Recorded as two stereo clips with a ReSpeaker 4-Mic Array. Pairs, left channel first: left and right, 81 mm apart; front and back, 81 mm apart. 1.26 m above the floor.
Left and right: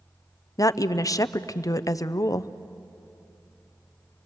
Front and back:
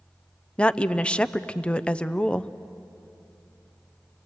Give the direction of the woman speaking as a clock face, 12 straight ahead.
10 o'clock.